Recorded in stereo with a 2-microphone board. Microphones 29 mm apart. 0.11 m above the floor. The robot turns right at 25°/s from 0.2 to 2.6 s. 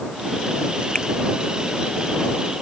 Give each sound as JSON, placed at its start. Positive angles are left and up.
{"t": 0.9, "sound": "a finger snap", "side_deg": 25}